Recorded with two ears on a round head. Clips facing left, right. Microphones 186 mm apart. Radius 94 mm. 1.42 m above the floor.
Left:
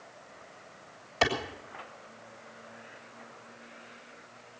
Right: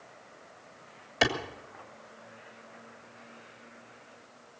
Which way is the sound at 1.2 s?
20° right (ahead or behind).